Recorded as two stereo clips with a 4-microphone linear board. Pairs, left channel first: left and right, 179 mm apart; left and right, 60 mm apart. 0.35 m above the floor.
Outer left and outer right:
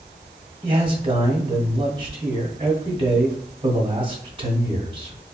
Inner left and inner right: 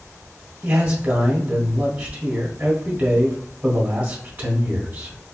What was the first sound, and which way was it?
A man speaking, 30° right (ahead or behind).